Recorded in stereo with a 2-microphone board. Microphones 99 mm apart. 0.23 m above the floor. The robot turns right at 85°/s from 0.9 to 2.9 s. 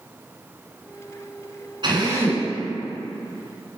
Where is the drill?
65° right, 2.0 m; by 2.5 s 10° right, 2.0 m.